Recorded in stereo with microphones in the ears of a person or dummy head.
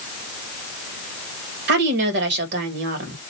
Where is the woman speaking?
60° right (ahead or behind), 1.5 m.